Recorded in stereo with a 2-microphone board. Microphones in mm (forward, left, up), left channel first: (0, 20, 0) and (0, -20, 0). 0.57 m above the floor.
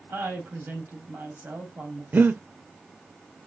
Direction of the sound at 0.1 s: 65° right (ahead or behind).